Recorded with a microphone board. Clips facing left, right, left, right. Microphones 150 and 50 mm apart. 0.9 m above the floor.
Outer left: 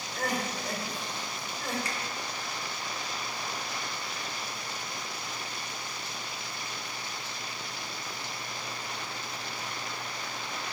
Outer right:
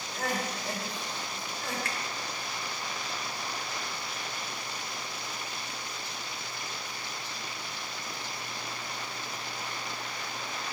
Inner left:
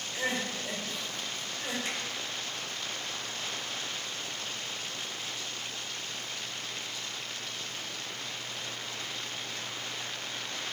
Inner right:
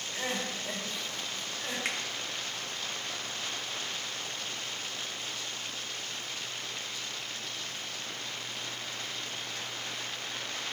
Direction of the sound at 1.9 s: 60° right (ahead or behind).